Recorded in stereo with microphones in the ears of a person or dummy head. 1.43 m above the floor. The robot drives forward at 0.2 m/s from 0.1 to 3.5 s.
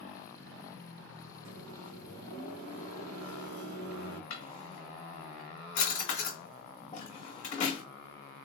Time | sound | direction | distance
1.4 | a microwave | 85° right | 1.1 m
4.3 | a drawer | 40° left (ahead or behind) | 1.9 m